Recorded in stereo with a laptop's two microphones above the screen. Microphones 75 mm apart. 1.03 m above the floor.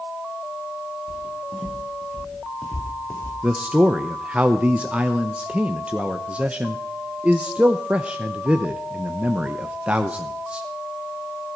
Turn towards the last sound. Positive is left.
turn(degrees=-15)  # may be behind; listen again after turning